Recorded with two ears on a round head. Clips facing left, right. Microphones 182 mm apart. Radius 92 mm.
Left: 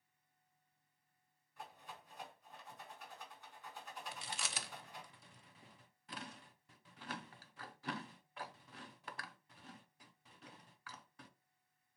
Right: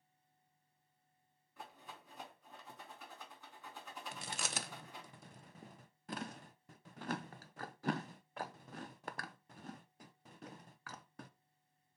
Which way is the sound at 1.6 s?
75° right (ahead or behind).